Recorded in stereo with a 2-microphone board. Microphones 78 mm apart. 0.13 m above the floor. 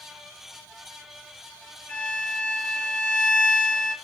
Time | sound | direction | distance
1.9 | a violin | 30° left (ahead or behind) | 1.3 m